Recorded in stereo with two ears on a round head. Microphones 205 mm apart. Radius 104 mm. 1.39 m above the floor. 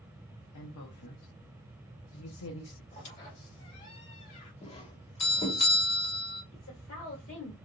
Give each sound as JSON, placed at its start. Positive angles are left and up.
{"t": 0.5, "sound": "a woman speaking", "side_deg": 70, "distance_m": 0.9}
{"t": 2.9, "sound": "a squeak", "side_deg": 35, "distance_m": 2.0}
{"t": 4.6, "sound": "a doorbell", "side_deg": 25, "distance_m": 0.9}
{"t": 6.5, "sound": "a woman speaking", "side_deg": 60, "distance_m": 2.5}